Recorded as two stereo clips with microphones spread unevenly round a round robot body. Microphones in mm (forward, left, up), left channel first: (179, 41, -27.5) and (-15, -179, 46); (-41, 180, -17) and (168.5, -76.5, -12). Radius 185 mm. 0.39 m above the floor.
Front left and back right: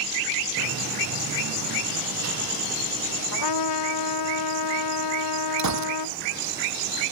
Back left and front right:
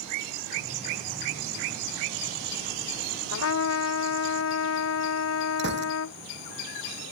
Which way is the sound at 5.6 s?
115° right.